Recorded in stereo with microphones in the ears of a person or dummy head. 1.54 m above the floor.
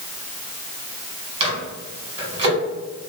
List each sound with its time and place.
1.4 s a microwave: 25° right (ahead or behind), 1.7 m